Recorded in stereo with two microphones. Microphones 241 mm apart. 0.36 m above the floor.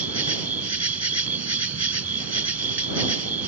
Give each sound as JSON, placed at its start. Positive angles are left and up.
{"t": 0.0, "sound": "an insect", "side_deg": -80}